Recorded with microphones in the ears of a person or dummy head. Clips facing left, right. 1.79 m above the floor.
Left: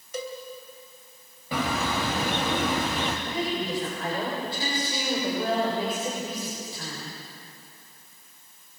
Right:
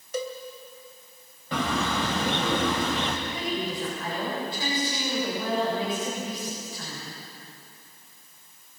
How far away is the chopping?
No chopping in this recording.